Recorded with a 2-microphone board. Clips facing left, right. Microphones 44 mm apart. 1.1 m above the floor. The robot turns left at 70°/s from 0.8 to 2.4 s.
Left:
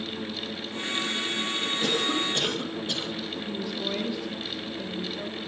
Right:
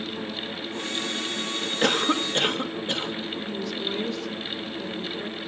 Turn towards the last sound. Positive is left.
turn(degrees=10)  # may be behind; listen again after turning